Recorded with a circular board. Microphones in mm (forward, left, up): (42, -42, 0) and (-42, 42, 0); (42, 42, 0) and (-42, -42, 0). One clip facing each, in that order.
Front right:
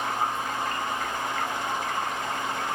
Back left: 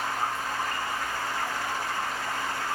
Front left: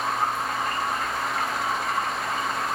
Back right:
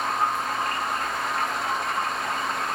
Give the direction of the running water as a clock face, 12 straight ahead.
3 o'clock.